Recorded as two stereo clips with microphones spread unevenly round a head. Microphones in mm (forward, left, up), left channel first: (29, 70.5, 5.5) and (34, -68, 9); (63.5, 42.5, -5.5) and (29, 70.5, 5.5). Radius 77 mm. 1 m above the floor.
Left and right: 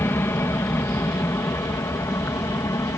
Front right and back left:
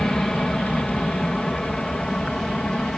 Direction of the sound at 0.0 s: 30° left.